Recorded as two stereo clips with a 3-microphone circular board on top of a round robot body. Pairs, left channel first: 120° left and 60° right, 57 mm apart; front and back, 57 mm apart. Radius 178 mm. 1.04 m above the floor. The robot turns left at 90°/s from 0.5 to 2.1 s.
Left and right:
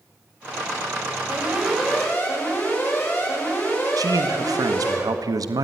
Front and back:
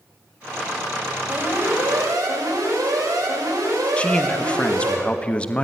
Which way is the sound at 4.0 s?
70° right.